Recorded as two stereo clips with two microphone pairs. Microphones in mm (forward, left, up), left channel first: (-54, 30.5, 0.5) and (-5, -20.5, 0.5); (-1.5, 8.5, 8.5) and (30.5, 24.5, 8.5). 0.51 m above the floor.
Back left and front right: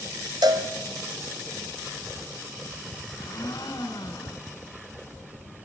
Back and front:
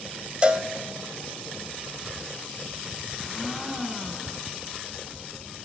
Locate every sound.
0.4 s a cowbell: 30° right, 1.4 m
3.1 s a blender: 115° left, 1.9 m